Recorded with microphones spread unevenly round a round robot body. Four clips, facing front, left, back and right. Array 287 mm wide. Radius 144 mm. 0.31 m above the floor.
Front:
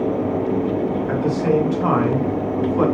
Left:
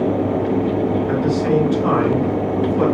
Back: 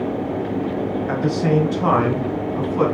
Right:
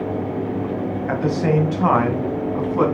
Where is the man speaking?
120° right, 2.5 m; by 2.9 s 115° right, 3.5 m.